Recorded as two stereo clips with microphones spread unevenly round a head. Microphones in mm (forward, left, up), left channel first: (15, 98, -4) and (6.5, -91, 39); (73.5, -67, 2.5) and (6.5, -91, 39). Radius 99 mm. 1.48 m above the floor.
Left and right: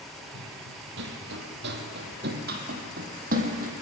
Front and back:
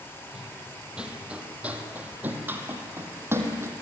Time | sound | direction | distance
0.3 | running footsteps | 90° right | 3.5 m